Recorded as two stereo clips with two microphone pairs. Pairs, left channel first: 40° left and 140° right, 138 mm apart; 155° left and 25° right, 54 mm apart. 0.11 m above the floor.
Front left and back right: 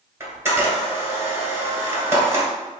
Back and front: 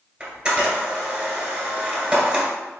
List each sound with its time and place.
0.2 s a camera shutter: 85° right, 1.8 m